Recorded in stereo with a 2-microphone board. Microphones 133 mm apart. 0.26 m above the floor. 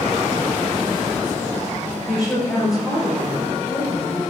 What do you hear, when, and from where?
2.1 s a woman speaking: centre (ahead or behind), 5 m; by 4.3 s 10° right (ahead or behind), 6 m